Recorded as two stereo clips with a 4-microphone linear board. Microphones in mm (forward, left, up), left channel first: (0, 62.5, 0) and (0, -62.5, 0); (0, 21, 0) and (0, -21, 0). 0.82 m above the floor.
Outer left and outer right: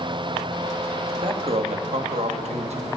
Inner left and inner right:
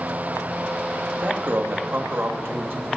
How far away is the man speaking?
About 0.9 m.